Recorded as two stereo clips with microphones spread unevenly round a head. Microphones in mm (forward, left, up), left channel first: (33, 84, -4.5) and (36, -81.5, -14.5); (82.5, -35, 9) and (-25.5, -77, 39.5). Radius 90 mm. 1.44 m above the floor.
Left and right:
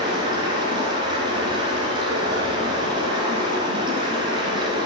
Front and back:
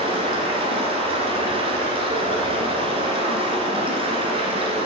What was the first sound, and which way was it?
Running water, 155° right.